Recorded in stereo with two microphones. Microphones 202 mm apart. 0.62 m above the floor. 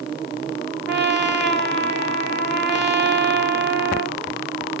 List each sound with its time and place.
0.9 s a trumpet: 55° right (ahead or behind), 1.5 m